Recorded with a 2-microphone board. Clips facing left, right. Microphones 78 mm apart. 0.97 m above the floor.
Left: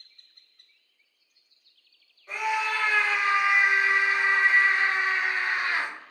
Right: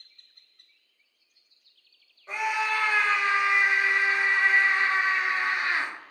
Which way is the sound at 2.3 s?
20° right (ahead or behind).